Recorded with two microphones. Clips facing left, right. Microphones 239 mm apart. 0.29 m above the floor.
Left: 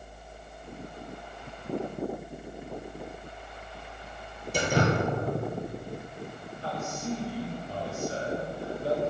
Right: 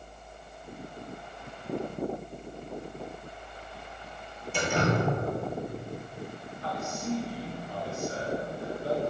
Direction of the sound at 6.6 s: 30° left (ahead or behind).